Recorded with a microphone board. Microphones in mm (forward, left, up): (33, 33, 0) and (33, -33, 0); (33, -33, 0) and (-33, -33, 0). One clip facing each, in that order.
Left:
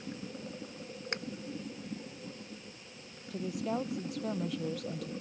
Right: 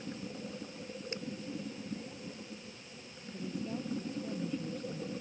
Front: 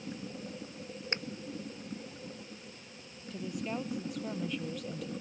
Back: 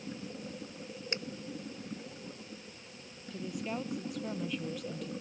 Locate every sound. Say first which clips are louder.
1.1 s a finger snap: left 5 dB, front 2 dB; 60° left
3.3 s a woman speaking: left 5 dB, front 1 dB; 90° left